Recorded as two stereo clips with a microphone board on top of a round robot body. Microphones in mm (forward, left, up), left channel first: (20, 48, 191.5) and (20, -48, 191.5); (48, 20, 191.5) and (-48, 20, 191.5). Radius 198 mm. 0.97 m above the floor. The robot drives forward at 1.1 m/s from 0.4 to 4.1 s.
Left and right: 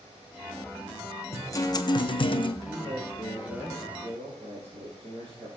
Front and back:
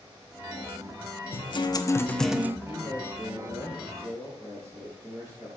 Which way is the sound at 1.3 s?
30° left.